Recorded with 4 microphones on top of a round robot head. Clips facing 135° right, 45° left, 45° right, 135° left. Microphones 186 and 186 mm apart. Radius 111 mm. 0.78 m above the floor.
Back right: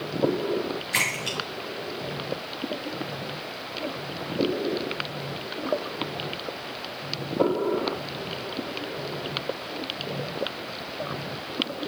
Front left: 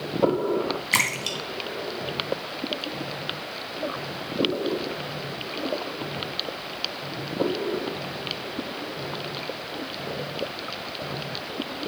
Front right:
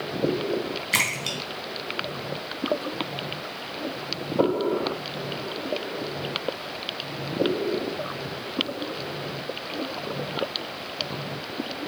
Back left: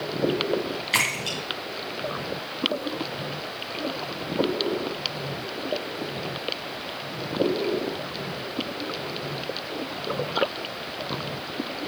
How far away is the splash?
About 3 m.